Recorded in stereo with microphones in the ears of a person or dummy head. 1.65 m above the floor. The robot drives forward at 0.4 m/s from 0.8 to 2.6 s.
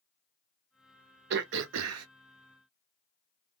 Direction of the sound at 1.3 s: 60° right (ahead or behind).